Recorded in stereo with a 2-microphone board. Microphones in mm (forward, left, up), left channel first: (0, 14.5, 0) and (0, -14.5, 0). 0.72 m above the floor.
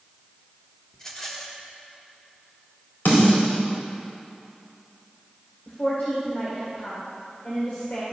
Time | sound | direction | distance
0.9 | a rattle | 15° left (ahead or behind) | 1.3 m
3.0 | a snare drum | 75° left (ahead or behind) | 4 m
5.7 | a woman speaking | 75° left (ahead or behind) | 2 m